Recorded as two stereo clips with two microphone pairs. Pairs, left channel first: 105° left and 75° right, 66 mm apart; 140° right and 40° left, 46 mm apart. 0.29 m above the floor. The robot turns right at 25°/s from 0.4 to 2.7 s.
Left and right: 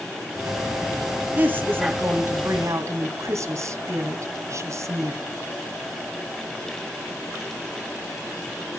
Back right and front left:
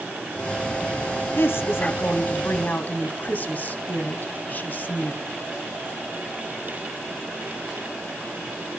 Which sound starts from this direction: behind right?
A woman speaking, at 1.4 s.